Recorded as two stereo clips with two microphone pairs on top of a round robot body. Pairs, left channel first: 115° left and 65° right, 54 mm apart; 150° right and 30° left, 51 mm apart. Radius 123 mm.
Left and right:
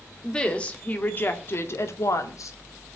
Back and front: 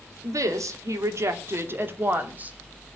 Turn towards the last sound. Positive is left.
turn(degrees=95)